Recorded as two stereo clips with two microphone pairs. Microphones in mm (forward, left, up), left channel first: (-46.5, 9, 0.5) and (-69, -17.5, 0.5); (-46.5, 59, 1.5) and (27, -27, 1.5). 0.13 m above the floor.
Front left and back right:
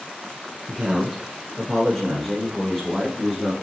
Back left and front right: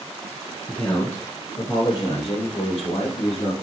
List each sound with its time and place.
0.7 s a man speaking: 175° right, 1.1 m; by 3.5 s 130° left, 2 m